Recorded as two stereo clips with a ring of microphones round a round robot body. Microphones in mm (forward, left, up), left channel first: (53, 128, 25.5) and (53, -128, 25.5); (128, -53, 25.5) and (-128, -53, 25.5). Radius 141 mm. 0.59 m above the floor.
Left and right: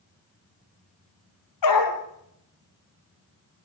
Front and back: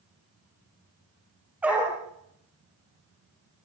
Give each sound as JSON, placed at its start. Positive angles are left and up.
{"t": 1.6, "sound": "a dog barking", "azimuth_deg": 95, "distance_m": 4.5}